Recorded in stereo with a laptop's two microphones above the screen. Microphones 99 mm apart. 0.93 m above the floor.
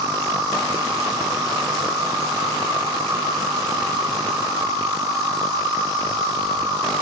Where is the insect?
40° right (ahead or behind), 1.7 m.